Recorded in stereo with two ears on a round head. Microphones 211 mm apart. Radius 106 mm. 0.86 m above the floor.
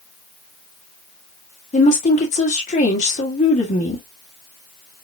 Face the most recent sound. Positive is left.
turn(degrees=30)  # may be behind; listen again after turning